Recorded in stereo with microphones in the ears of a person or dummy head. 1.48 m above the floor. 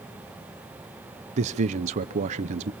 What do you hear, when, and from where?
1.4 s a man speaking: 40° right (ahead or behind), 0.7 m